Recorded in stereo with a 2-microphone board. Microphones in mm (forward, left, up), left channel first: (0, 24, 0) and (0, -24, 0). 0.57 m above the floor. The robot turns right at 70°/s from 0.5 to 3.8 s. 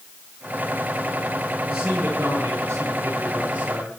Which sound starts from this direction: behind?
A man speaking, at 1.6 s.